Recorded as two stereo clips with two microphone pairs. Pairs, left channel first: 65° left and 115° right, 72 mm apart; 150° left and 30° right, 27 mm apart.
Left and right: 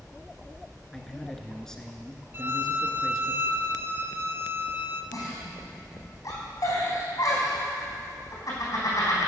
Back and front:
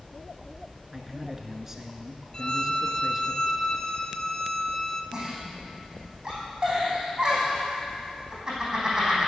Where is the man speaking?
Straight ahead, 1.1 m.